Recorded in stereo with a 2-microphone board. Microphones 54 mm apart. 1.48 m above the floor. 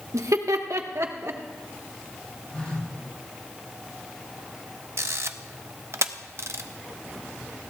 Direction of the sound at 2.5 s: 25° left (ahead or behind).